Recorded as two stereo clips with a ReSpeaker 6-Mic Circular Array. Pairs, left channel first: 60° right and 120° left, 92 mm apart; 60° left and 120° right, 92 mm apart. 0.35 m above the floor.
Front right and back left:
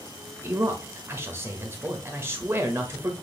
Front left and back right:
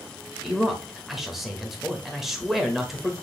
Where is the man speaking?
155° left, 1.0 m.